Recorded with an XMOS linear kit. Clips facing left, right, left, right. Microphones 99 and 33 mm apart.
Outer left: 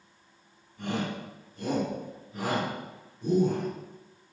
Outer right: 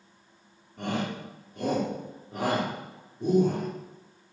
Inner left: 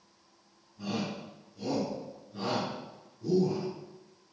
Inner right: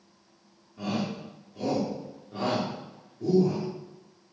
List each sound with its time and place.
0.8 s a shout: 85° right, 4 m